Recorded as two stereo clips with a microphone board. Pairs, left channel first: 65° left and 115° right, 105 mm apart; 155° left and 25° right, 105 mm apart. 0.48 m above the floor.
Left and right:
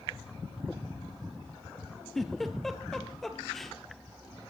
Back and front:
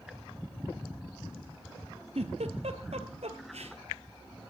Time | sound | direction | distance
2.1 | a giggle | 20° right | 1.7 m